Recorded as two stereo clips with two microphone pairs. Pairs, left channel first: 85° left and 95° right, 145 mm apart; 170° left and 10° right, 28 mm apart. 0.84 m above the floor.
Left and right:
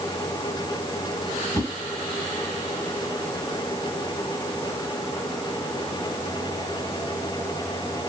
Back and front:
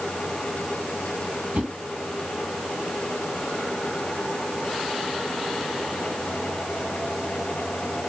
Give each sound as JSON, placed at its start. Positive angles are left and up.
{"t": 1.5, "sound": "a whoosh", "azimuth_deg": 20, "distance_m": 2.0}